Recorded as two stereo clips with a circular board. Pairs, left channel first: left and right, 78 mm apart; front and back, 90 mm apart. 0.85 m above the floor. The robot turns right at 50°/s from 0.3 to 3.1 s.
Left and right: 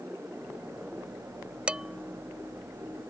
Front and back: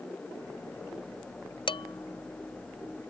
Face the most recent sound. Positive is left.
turn(degrees=55)